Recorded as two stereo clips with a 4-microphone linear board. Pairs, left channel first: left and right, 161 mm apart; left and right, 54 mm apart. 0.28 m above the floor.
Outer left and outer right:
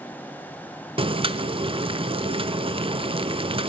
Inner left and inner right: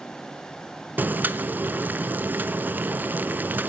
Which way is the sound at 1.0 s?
35° right (ahead or behind).